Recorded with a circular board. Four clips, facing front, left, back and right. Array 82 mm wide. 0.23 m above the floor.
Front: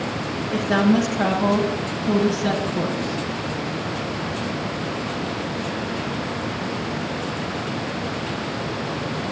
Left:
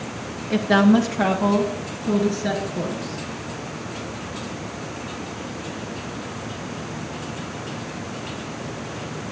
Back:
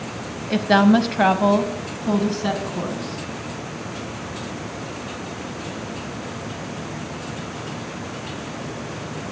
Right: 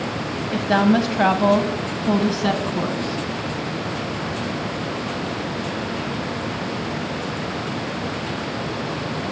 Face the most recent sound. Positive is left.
turn(degrees=-100)